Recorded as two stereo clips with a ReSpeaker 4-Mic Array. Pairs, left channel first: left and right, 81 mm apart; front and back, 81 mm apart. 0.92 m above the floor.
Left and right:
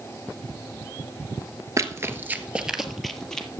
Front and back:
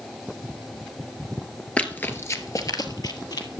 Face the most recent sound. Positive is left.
turn(degrees=15)